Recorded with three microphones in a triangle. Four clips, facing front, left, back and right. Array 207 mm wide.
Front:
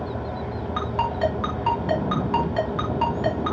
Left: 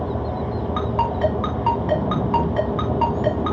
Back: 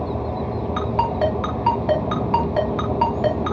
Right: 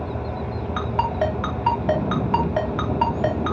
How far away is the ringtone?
About 4 m.